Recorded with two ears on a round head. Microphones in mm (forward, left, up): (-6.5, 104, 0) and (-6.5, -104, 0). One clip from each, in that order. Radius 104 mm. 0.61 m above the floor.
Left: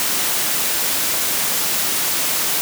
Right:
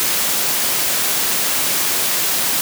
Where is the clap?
I don't hear a clap.